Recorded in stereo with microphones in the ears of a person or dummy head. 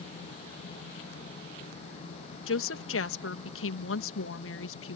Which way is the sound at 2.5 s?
65° left (ahead or behind).